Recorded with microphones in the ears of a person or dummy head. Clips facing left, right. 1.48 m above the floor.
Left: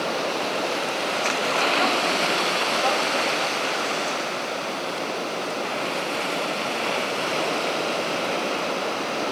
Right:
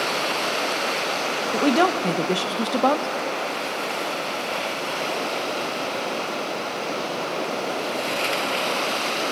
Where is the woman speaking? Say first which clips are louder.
Right 8 dB; 55° right (ahead or behind), 1.2 m.